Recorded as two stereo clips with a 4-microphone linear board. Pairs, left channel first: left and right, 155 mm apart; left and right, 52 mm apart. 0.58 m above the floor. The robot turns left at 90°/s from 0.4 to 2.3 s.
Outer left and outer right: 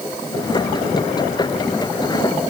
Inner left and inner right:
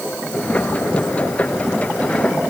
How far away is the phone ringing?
No phone ringing in this recording.